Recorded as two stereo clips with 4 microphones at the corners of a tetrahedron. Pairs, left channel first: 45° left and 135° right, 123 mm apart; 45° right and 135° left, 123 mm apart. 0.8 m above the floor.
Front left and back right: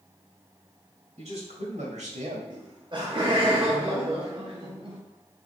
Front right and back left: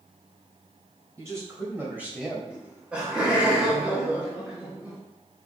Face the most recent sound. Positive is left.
turn(degrees=-150)